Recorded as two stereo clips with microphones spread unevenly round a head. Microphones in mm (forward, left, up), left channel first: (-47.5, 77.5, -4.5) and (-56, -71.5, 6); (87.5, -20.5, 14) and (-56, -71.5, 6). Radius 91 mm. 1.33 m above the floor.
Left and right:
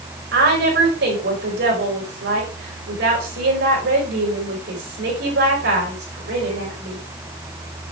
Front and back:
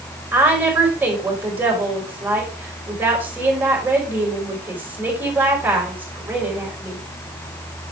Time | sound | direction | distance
0.3 | a woman speaking | 80° right | 5 m